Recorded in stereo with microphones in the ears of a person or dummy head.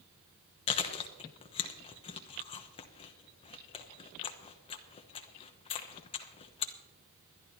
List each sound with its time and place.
0.7 s chewing: 30° left (ahead or behind), 1.0 m